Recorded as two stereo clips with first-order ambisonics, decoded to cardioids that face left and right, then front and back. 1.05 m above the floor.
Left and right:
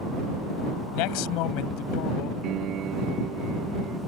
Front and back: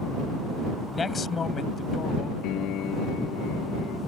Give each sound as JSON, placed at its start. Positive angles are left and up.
{"t": 0.9, "sound": "a man speaking", "azimuth_deg": 75}
{"t": 2.4, "sound": "a piano", "azimuth_deg": -45}